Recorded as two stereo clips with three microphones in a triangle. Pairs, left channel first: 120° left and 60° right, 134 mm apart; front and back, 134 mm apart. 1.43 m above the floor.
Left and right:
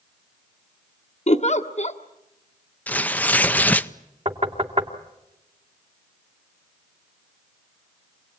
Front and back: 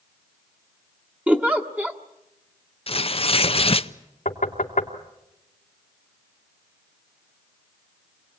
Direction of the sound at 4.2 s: 20° right.